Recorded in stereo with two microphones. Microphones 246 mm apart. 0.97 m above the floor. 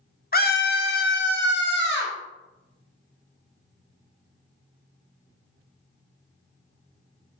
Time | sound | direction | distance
0.3 | a scream | 40° left (ahead or behind) | 0.6 m